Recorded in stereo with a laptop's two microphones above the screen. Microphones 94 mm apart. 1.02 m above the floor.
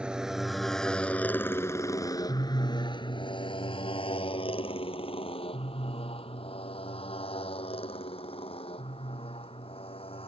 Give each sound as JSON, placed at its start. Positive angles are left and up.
{"t": 0.0, "sound": "a motorcycle", "side_deg": -10}